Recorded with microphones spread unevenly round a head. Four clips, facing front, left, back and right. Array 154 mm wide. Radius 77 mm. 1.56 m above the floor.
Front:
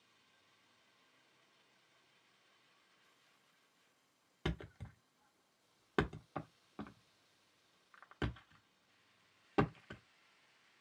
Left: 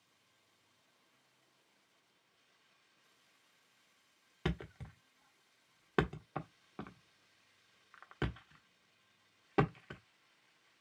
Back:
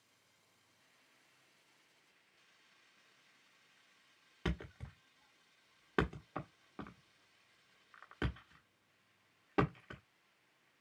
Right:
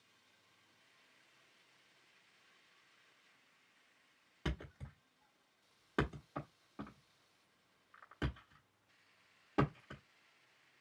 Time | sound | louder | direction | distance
4.5 | a thud | left 5 dB, back 1 dB | 95° left | 1.2 m